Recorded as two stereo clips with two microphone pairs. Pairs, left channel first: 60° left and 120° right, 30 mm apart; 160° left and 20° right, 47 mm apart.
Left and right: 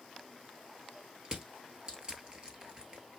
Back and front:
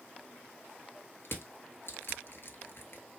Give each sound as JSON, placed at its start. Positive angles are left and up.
{"t": 1.2, "sound": "crushing", "azimuth_deg": -175, "distance_m": 1.0}